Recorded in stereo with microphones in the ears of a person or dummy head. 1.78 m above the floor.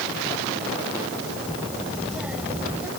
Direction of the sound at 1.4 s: Centre (ahead or behind).